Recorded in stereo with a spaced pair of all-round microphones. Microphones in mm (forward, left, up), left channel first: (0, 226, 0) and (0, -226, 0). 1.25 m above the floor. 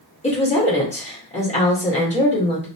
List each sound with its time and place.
0.2 s a woman speaking: 15° left (ahead or behind), 1.5 m